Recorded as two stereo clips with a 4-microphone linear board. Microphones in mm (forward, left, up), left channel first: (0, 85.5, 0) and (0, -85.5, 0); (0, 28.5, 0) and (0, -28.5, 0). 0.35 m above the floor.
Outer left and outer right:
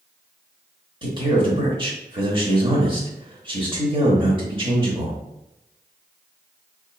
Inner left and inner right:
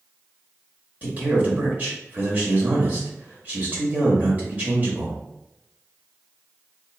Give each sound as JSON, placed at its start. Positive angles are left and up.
{"t": 1.0, "sound": "a man speaking", "side_deg": -30, "distance_m": 1.0}